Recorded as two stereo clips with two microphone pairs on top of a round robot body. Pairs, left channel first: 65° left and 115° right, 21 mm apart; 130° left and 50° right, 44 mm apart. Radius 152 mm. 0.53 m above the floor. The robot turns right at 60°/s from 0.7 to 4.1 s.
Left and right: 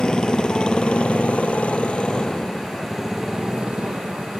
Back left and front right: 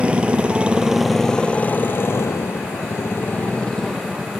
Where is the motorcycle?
15° left; by 4.4 s 130° right.